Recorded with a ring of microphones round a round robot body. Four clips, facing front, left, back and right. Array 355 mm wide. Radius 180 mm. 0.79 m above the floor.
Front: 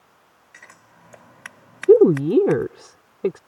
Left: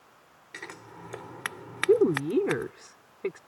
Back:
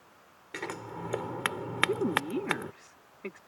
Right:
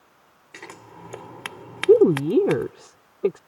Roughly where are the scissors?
Behind.